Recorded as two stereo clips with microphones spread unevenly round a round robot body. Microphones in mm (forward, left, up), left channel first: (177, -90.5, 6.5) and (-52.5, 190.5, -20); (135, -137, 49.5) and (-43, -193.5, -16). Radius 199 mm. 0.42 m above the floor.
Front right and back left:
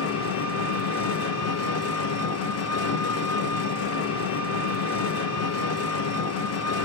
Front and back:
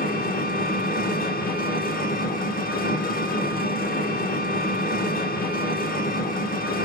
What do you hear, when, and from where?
0.0 s an engine running: 25° right, 0.8 m